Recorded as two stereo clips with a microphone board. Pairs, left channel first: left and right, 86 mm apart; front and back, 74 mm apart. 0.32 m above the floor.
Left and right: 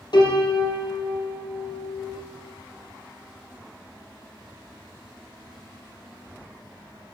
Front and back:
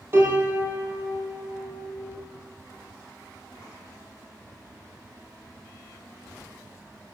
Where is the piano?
125° left, 1.6 m.